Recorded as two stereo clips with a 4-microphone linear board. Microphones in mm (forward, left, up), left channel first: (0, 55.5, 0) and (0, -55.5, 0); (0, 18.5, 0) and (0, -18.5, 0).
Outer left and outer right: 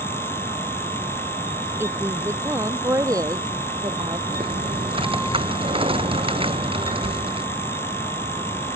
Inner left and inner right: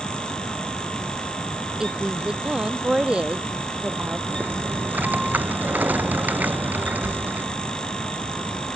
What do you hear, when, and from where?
1.8 s a woman speaking: 20° right (ahead or behind); by 4.2 s 35° right (ahead or behind)
4.3 s typing on a keyboard: 55° right (ahead or behind)